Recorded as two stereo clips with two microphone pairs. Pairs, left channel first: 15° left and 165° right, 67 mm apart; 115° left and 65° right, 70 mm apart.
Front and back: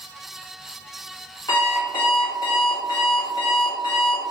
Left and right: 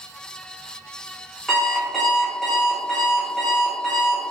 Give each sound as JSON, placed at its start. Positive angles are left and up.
{"t": 1.5, "sound": "an alarm clock", "azimuth_deg": 30, "distance_m": 1.6}